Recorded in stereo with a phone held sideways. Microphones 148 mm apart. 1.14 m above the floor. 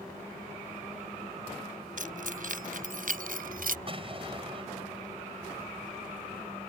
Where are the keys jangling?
65° right (ahead or behind); by 3.8 s 75° right (ahead or behind).